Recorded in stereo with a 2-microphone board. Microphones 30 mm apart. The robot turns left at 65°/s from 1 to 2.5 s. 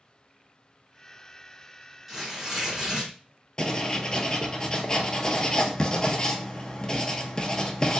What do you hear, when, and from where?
2.1 s tearing paper: 5° right (ahead or behind), 1.7 m; by 3.1 s 20° right (ahead or behind), 1.7 m
3.6 s writing: 30° left (ahead or behind), 0.5 m